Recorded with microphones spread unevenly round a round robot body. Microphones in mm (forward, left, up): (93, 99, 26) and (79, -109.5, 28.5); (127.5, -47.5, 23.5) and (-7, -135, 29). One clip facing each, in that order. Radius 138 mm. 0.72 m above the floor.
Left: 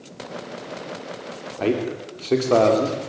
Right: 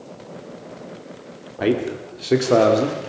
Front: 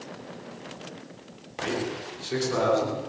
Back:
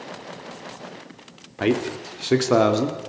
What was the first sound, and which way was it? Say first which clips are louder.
A man speaking: right 2 dB, back 8 dB; 175° right.